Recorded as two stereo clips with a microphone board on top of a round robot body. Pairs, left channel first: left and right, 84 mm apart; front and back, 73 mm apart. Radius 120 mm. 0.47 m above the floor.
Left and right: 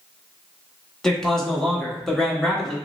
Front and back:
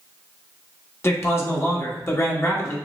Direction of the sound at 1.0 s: 10° left.